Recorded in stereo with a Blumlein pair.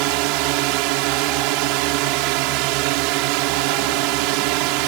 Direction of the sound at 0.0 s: 45° right.